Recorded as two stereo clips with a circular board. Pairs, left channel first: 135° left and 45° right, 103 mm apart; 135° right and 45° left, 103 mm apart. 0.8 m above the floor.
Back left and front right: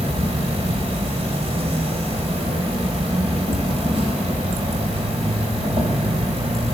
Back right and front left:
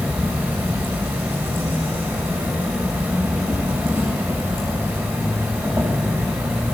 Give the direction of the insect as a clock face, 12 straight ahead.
1 o'clock.